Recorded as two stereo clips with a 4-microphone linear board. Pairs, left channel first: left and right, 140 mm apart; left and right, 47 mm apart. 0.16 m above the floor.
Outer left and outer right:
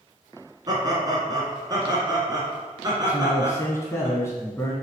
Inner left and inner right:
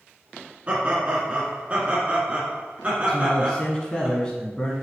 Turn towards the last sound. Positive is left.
turn(degrees=20)  # may be behind; listen again after turning